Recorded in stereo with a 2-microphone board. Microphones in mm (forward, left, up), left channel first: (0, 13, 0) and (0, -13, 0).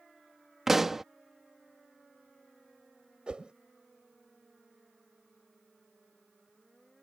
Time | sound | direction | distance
0.7 | a pop | 10° right (ahead or behind) | ?
3.3 | a whoosh | 40° right (ahead or behind) | ?